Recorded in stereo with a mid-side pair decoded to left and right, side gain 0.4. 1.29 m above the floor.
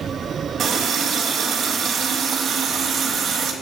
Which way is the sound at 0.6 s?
65° right.